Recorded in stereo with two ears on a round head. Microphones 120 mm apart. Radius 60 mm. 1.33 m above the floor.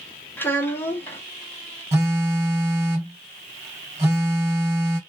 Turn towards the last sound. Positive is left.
turn(degrees=-20)  # may be behind; listen again after turning